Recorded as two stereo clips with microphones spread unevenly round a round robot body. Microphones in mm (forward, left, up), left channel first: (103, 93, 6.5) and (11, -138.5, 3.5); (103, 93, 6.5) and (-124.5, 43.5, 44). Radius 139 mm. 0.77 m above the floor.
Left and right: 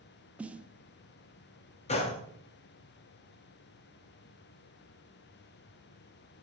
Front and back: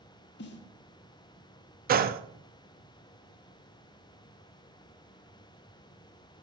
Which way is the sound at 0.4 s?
25° right.